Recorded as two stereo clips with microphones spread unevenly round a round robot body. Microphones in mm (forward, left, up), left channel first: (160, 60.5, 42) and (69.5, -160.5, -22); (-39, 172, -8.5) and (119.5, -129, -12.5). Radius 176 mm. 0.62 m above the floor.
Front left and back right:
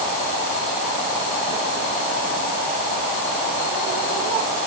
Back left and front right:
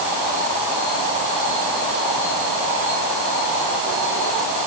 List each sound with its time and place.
Only background noise.